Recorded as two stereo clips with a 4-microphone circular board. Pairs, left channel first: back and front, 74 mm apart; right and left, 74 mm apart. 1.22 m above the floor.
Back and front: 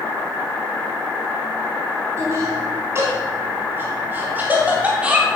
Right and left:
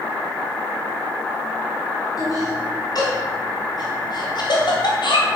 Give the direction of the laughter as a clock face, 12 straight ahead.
2 o'clock.